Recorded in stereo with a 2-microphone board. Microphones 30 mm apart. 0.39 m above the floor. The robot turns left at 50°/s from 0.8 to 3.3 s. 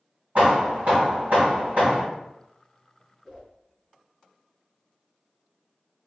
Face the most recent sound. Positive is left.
turn(degrees=15)  # may be behind; listen again after turning